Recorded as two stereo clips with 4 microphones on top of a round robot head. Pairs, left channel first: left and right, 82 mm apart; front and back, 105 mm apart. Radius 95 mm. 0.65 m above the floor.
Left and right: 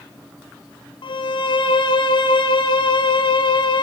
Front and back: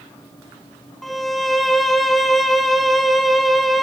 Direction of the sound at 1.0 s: 90° left.